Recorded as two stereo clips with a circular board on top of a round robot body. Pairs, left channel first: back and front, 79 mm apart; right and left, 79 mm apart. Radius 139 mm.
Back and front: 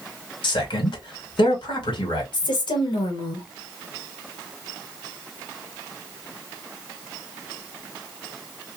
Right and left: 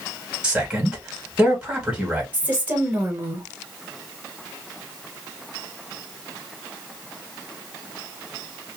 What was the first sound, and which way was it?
A man speaking, 170° left.